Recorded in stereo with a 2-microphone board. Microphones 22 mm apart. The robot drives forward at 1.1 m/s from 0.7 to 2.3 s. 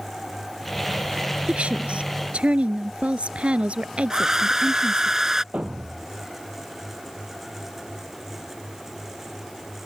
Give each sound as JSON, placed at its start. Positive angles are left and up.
{"t": 1.5, "sound": "a woman speaking", "side_deg": -75}
{"t": 4.1, "sound": "a hair dryer", "side_deg": -20}
{"t": 5.5, "sound": "a thud", "side_deg": -70}